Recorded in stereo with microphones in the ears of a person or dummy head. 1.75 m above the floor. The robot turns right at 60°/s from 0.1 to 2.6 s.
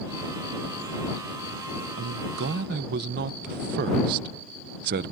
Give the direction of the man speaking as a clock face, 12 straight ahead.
4 o'clock.